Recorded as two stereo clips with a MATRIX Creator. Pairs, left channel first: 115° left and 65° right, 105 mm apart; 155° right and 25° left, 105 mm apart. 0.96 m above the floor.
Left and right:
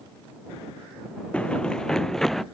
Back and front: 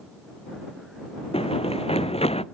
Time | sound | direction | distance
1.3 | running footsteps | 170° right | ?